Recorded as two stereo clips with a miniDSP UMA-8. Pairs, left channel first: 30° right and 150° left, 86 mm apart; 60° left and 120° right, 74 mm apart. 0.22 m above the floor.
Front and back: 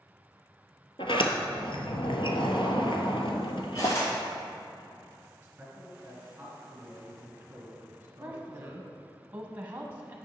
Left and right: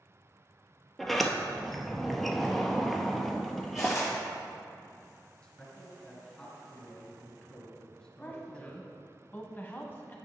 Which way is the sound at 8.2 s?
100° left.